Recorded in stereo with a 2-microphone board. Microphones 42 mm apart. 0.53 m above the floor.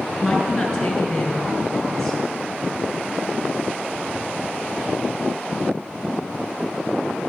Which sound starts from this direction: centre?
A woman speaking, at 0.2 s.